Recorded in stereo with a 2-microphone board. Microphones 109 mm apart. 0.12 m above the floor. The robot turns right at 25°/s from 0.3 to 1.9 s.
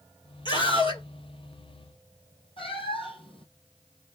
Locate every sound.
0.5 s a scream: 45° left (ahead or behind), 3.5 m; by 1.0 s 55° left (ahead or behind), 3.5 m
2.6 s a cat meowing: 55° left (ahead or behind), 1.5 m